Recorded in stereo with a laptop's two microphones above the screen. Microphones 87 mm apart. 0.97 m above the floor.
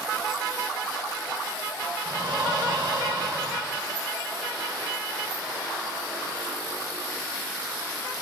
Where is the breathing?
65° right (ahead or behind), 3.5 m.